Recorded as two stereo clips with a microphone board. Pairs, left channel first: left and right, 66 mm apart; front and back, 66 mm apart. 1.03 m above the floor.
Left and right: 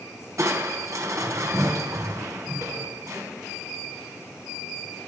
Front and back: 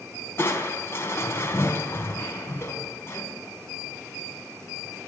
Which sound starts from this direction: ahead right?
Crushing, at 0.4 s.